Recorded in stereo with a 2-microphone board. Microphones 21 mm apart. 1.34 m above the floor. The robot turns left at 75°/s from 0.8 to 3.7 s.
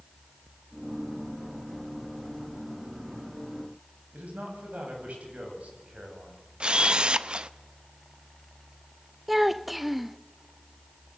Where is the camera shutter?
45° right (ahead or behind), 0.8 m.